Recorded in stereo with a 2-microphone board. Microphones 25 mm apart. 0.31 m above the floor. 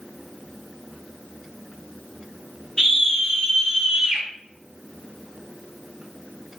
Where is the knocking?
I don't hear knocking.